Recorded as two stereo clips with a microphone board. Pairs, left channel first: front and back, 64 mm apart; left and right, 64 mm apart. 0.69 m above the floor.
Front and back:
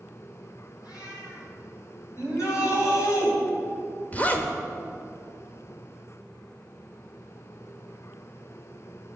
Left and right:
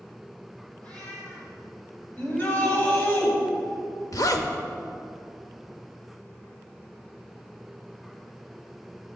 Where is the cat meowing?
20° left, 3.5 m.